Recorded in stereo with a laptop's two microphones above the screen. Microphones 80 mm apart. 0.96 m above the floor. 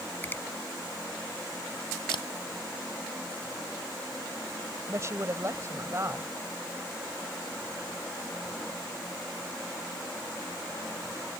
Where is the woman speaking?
35° right (ahead or behind).